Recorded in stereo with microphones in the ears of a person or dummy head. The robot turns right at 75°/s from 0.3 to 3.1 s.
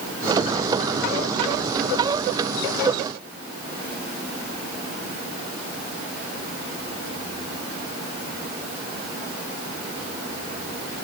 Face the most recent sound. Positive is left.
No sound to turn to.